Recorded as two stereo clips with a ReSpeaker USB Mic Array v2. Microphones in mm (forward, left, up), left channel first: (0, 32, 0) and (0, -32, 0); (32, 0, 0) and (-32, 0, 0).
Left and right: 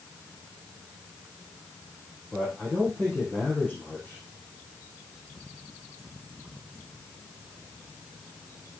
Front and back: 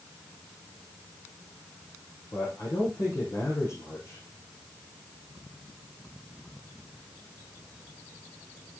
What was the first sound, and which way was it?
A man speaking, 15° left.